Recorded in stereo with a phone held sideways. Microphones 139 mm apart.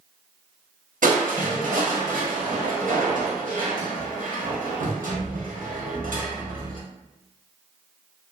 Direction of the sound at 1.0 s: 80° right.